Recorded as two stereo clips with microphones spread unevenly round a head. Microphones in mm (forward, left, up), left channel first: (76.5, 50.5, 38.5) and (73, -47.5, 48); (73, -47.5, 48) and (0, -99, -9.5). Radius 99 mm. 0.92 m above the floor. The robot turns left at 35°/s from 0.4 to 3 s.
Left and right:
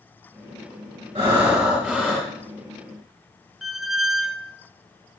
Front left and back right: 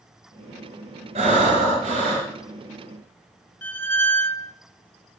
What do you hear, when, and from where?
1.1 s breathing: 160° right, 3 m; by 2.3 s 160° left, 3 m
3.6 s a squeak: 10° right, 0.7 m